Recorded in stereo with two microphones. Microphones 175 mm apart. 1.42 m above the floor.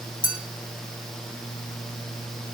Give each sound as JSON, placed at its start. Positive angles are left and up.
{"t": 0.2, "sound": "a clink", "side_deg": -30, "distance_m": 4.0}